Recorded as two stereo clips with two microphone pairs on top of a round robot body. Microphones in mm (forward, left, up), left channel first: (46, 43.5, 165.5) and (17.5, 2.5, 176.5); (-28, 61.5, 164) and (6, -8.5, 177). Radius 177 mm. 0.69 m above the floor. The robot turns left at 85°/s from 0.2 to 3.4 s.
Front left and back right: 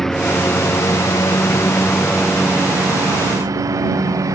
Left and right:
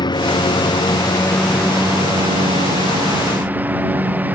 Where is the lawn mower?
140° left; by 4.3 s 130° right.